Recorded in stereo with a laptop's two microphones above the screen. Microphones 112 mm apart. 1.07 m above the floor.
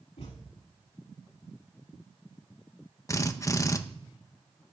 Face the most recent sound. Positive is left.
turn(degrees=30)  # may be behind; listen again after turning